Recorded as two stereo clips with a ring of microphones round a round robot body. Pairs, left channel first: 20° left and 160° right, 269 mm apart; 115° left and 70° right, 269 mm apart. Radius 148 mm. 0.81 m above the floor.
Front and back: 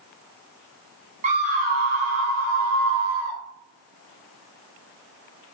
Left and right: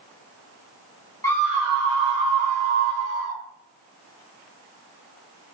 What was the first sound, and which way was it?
A scream, 175° left.